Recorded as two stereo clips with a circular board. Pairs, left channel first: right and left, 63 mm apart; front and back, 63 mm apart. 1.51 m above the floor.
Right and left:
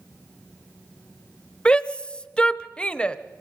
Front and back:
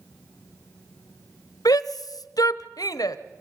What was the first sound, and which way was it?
A shout, 15° right.